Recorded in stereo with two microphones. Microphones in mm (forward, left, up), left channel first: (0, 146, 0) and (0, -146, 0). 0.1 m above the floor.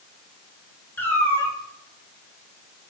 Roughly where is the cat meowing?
Centre.